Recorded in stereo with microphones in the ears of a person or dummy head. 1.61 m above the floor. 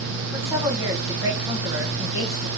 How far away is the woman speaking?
About 1.0 m.